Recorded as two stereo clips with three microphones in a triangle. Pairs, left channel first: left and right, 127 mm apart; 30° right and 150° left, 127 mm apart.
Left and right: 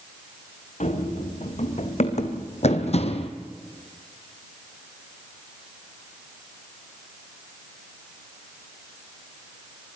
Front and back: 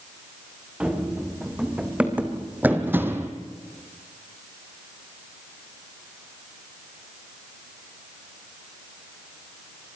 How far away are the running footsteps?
About 3.5 m.